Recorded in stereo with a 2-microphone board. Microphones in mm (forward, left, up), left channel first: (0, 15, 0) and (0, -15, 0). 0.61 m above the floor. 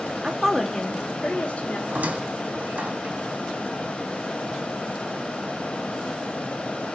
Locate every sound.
0.2 s a woman speaking: 25° right (ahead or behind), 1.0 m; by 1.8 s 60° left (ahead or behind), 2 m
1.9 s a squeak: 60° right (ahead or behind), 1.1 m